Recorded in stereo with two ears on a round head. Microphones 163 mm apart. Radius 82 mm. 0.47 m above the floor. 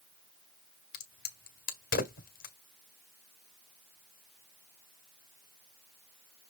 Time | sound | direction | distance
0.9 | a crack | 50° left (ahead or behind) | 1.6 m